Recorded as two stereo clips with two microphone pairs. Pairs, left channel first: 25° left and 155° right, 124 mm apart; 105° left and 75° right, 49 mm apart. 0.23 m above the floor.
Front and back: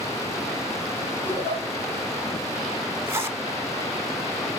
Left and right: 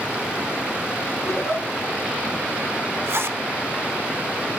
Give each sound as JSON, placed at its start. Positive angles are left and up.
{"t": 1.2, "sound": "a giggle", "azimuth_deg": 95, "distance_m": 4.5}
{"t": 3.1, "sound": "a zipper", "azimuth_deg": -90, "distance_m": 0.7}